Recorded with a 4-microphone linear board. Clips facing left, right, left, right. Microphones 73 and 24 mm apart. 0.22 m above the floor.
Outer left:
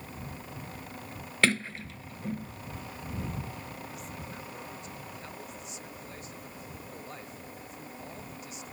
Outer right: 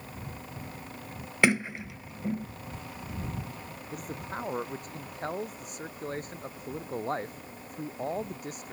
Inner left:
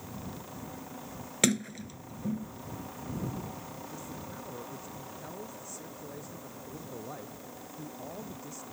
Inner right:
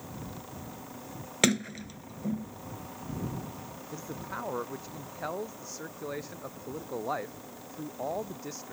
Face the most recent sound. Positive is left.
turn(degrees=-50)  # may be behind; listen again after turning